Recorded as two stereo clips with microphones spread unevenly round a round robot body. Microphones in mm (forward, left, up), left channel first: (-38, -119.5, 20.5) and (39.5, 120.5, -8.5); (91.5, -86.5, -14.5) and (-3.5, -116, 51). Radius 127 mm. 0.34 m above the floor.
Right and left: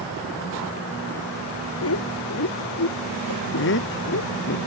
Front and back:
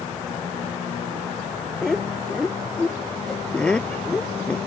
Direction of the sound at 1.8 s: 70° right.